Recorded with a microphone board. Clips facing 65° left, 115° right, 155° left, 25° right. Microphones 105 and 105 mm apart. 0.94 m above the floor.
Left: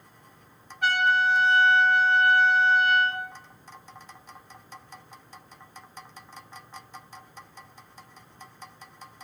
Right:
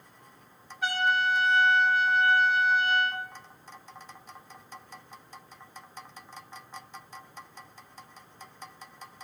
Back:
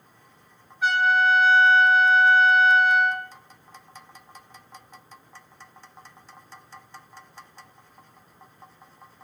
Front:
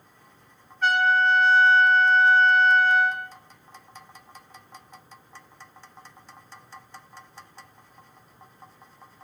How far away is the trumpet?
About 2 m.